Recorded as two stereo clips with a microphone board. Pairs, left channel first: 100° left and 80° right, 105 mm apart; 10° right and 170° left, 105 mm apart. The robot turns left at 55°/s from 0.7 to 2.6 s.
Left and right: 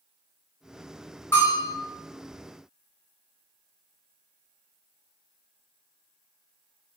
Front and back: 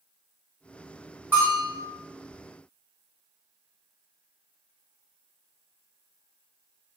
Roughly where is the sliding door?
I don't hear a sliding door.